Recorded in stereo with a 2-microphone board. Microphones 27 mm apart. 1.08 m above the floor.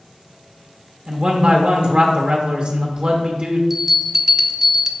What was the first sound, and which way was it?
A man speaking, 50° right (ahead or behind).